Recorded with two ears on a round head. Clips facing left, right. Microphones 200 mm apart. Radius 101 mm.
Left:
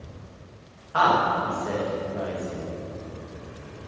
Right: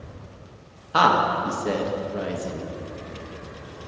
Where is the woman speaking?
55° right (ahead or behind), 1.3 m.